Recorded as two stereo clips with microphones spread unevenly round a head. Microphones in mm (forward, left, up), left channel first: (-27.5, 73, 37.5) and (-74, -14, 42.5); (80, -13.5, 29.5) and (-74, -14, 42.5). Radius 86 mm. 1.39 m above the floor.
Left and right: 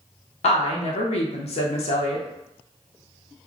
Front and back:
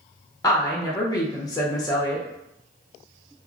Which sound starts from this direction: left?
A woman speaking, at 0.4 s.